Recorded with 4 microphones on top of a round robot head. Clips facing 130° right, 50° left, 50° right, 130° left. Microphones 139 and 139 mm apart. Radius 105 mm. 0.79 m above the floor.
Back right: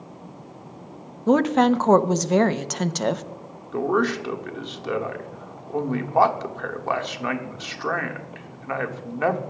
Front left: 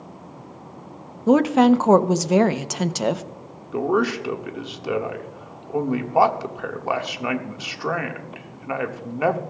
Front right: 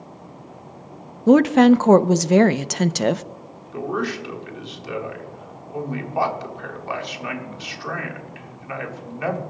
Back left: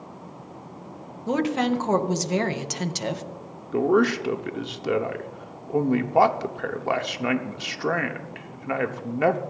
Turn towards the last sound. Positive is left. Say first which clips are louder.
# front left 1 dB, back left 6 dB
turn(degrees=125)